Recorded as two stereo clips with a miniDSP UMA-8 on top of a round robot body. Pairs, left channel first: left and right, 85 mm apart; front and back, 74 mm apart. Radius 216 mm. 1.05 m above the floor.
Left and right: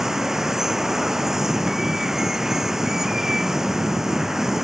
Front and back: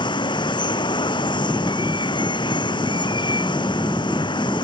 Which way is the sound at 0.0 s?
5° right.